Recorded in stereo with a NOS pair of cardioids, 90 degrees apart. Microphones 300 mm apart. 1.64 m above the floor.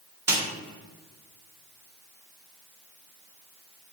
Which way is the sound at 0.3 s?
10° right.